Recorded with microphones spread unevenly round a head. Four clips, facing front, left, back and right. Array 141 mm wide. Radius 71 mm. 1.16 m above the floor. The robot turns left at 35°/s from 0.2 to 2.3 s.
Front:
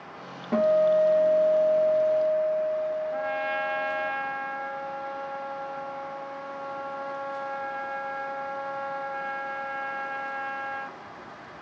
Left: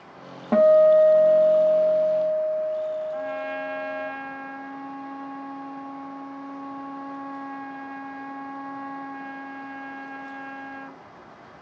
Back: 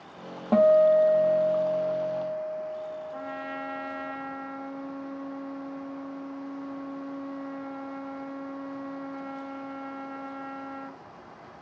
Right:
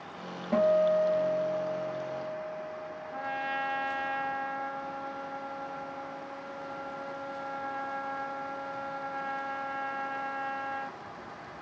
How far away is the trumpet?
About 0.9 m.